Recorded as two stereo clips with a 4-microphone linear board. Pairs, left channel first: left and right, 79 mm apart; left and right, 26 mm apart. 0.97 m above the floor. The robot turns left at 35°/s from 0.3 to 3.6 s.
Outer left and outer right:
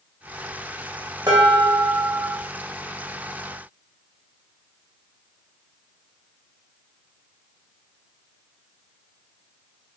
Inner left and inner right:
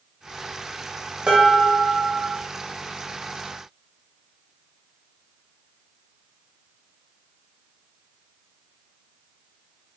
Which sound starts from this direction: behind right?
Dishes clattering, at 1.3 s.